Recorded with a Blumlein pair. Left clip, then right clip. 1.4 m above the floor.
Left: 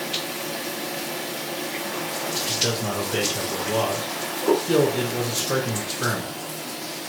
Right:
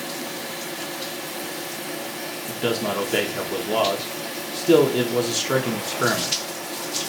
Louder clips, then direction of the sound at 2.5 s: Right 3 dB; 65° right.